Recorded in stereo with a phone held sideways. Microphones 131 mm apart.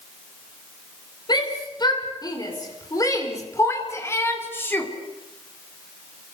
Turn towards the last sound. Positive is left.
turn(degrees=15)  # may be behind; listen again after turning